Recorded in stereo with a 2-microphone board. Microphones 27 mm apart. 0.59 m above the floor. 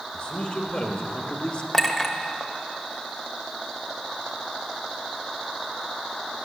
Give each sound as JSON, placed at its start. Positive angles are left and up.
{"t": 0.1, "sound": "a man speaking", "side_deg": 45, "distance_m": 2.0}
{"t": 1.7, "sound": "a clink", "side_deg": 10, "distance_m": 1.1}